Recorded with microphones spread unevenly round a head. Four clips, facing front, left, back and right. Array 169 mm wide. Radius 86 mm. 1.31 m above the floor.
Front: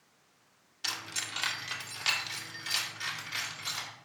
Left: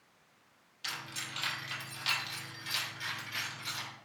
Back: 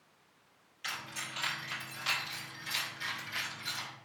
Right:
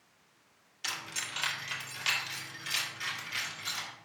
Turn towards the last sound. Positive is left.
turn(degrees=0)